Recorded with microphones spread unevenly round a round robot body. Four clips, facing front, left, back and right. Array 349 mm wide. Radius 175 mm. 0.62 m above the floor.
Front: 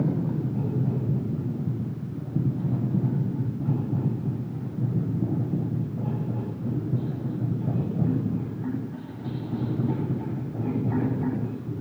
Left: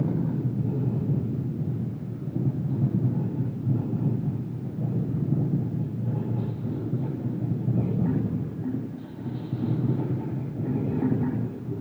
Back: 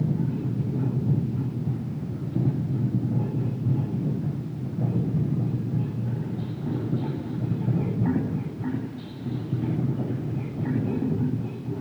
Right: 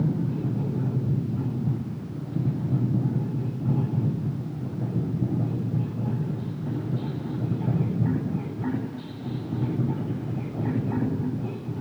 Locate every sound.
Only background noise.